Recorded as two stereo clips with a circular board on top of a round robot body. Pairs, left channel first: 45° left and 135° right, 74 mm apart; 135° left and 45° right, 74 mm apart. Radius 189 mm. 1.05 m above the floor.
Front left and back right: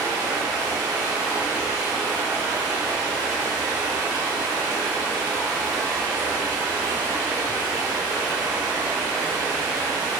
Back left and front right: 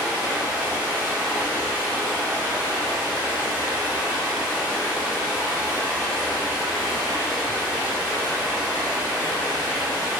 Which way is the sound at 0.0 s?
120° right.